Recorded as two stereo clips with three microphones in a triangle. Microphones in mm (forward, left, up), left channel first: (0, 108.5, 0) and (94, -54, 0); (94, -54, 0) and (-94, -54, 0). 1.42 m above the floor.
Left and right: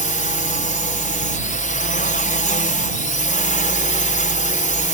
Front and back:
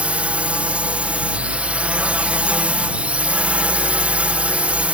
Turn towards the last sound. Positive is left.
turn(degrees=100)